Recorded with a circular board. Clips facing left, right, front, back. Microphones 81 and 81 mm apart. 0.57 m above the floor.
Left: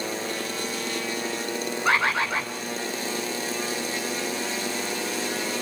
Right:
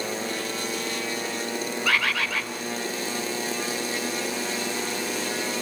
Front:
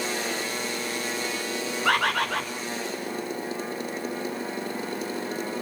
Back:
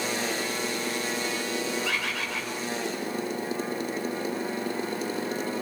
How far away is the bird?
About 2 m.